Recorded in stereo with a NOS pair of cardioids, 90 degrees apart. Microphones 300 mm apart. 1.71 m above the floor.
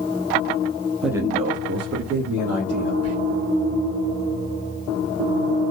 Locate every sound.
1.0 s a man speaking: straight ahead, 0.7 m; by 2.9 s 55° right, 1.9 m
3.0 s whispering: 50° right, 1.6 m